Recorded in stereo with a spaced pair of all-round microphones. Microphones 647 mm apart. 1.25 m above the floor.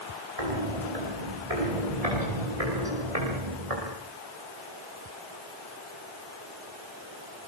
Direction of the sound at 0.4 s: 75° right (ahead or behind).